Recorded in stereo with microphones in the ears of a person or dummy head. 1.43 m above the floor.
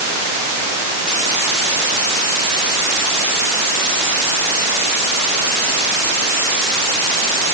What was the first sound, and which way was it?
Only background noise.